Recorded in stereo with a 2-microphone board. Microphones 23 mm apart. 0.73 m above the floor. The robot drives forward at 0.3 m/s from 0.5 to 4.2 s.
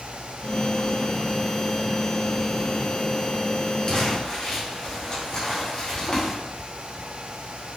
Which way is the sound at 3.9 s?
40° left (ahead or behind).